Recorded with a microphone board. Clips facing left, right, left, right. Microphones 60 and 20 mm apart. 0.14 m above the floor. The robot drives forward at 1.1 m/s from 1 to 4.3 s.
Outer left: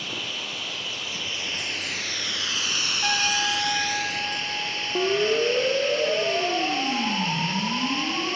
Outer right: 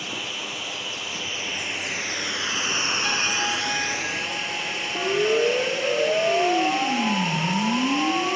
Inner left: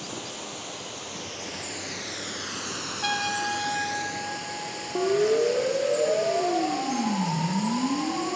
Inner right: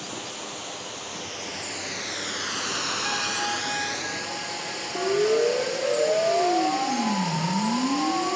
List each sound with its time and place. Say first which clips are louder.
0.0 s running water: outer right 1 dB, inner right 1 dB; 10° right (ahead or behind), 2.5 m; by 8.4 s 15° right (ahead or behind), 1.7 m
3.0 s a trumpet: outer left 4 dB, even; 55° left (ahead or behind), 2.5 m; by 5.2 s 40° left (ahead or behind), 3.5 m
5.0 s a siren: outer right 1 dB, even; 20° left (ahead or behind), 3.5 m; by 8.4 s 25° right (ahead or behind), 4.5 m